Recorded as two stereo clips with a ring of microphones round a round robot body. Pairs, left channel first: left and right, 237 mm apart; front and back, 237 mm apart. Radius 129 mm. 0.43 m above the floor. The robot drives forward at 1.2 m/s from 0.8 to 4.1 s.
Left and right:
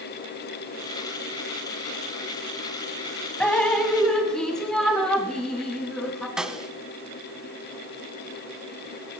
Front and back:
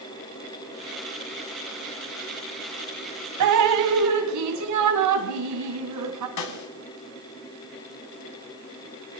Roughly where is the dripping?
Behind.